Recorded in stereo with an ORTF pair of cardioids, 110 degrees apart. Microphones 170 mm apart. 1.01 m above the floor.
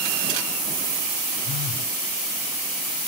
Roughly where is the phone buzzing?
Ahead left.